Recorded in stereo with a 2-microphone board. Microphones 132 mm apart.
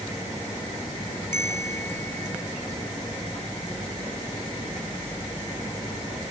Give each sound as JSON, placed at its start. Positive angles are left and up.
{"t": 1.3, "sound": "a bell", "side_deg": -65}